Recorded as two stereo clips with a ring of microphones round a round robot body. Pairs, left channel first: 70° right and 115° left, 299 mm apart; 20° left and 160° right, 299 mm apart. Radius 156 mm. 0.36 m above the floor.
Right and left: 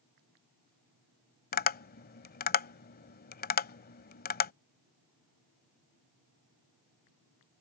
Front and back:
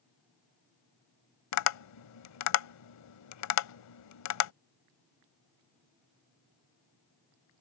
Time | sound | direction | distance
1.5 | tapping | 5° right | ?